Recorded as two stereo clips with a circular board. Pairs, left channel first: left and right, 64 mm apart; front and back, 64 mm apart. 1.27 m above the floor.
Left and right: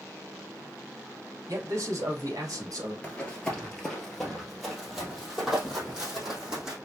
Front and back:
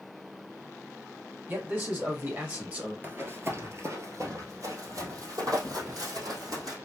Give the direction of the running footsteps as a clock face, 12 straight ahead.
7 o'clock.